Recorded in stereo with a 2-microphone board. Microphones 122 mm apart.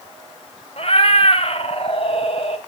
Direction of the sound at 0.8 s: 55° left (ahead or behind).